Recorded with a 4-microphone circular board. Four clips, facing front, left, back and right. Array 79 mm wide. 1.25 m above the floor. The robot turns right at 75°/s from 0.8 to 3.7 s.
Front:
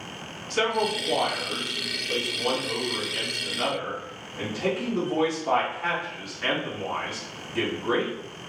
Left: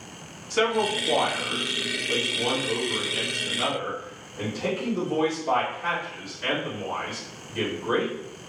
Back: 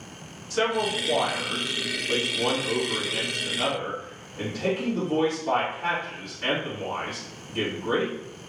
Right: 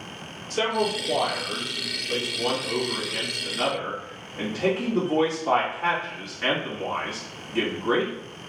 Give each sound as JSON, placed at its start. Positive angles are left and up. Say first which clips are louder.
{"t": 0.5, "sound": "a man speaking", "louder": "left 1 dB, even", "azimuth_deg": 65, "distance_m": 2.5}